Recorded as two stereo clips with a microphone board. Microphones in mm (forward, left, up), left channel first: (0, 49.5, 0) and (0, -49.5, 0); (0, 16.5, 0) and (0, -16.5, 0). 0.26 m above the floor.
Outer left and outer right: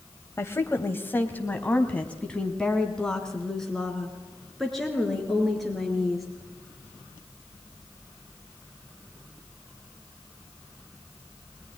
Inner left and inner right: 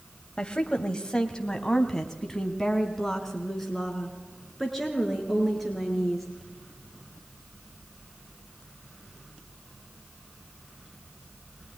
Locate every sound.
0.4 s a woman speaking: 25° left (ahead or behind), 1.2 m; by 6.3 s centre (ahead or behind), 4.5 m